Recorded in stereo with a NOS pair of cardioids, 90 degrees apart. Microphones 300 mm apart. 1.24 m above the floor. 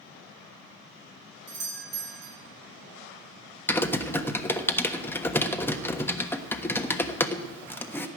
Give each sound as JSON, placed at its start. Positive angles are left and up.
{"t": 1.5, "sound": "a doorbell", "azimuth_deg": -55, "distance_m": 2.5}
{"t": 3.7, "sound": "typing on a keyboard", "azimuth_deg": 5, "distance_m": 1.2}